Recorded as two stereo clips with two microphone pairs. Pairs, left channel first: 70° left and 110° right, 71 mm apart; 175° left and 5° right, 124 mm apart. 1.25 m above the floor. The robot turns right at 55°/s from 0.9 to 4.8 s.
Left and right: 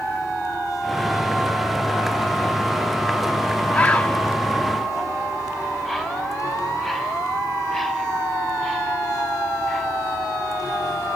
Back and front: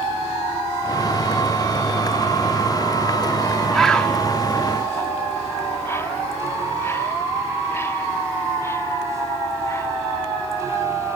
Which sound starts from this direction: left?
A bird, at 3.7 s.